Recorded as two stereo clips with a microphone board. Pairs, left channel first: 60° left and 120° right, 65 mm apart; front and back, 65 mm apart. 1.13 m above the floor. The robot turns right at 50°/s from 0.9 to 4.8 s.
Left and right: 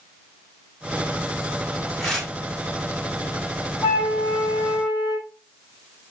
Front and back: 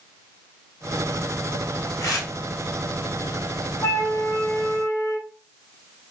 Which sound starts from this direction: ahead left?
A flute, at 3.8 s.